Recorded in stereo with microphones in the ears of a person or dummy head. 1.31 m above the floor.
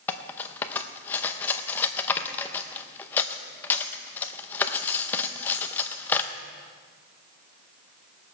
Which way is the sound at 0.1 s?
10° left (ahead or behind).